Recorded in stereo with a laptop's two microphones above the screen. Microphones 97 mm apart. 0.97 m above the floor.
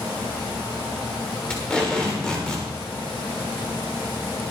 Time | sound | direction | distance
1.5 | tape being pulled | 10° left (ahead or behind) | 1.9 m